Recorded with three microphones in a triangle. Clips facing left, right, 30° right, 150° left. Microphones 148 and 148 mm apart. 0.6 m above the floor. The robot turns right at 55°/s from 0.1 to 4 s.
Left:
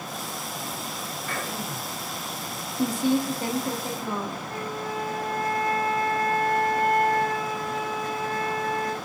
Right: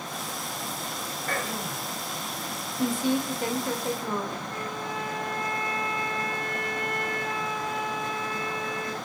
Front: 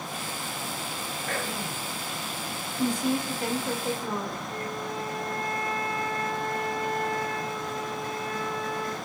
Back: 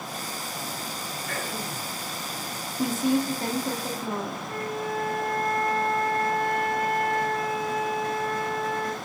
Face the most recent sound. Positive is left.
turn(degrees=135)